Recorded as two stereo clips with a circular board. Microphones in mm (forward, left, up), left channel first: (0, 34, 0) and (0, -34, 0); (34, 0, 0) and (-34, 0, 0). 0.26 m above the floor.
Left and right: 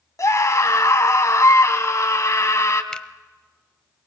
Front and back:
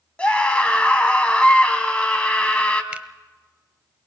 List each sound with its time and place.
0.2 s a scream: 70° left, 1.9 m
2.9 s a finger snap: 150° left, 0.8 m